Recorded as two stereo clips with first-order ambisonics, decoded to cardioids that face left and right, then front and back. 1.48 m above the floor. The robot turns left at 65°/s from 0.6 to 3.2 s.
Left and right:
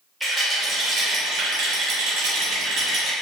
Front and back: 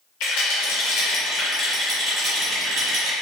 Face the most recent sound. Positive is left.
turn(degrees=-175)